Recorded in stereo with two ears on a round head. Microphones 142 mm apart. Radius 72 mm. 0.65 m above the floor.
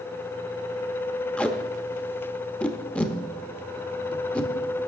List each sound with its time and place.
1.4 s tape being pulled: 10° left (ahead or behind), 0.7 m